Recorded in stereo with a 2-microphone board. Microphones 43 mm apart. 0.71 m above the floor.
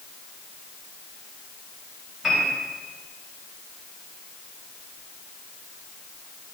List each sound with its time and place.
2.2 s a piano: 5° right (ahead or behind), 4.5 m